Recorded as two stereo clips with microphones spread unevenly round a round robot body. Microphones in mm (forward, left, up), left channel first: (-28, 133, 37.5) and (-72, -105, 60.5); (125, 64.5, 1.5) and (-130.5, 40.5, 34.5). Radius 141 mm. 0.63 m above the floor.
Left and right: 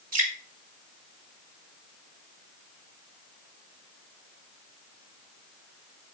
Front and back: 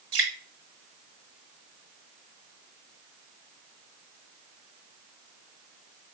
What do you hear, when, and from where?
0.1 s dripping: 130° right, 4.5 m